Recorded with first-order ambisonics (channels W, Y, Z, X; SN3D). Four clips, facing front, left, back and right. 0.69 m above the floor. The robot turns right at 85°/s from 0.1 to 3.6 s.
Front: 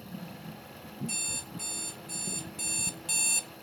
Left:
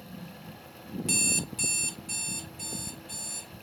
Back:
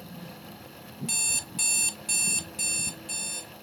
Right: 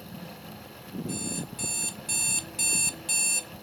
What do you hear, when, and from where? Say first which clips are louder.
1.1 s an alarm clock: left 9 dB, back 7 dB; 125° left, 0.6 m; by 3.5 s 30° right, 0.6 m